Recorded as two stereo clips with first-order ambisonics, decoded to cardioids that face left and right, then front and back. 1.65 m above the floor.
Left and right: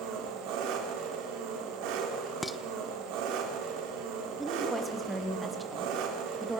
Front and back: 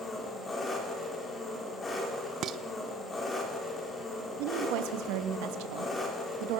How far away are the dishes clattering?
About 0.8 m.